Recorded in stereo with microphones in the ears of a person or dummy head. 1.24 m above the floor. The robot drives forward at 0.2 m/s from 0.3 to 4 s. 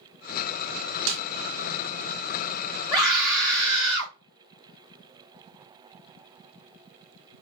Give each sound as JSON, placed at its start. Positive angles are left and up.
{"t": 1.1, "sound": "a snare drum", "side_deg": -55, "distance_m": 0.7}
{"t": 2.9, "sound": "a scream", "side_deg": -20, "distance_m": 2.0}